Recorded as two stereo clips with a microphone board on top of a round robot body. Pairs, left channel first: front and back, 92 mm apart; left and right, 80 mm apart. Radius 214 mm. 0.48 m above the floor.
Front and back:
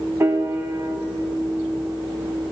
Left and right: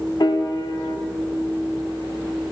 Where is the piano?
120° left, 0.9 m.